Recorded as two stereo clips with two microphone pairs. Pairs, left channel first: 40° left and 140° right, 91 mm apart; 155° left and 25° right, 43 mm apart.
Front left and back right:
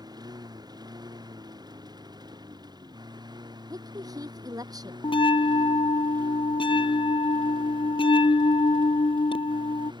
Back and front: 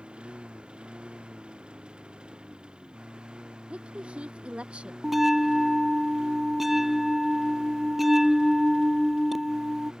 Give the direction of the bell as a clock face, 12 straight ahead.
10 o'clock.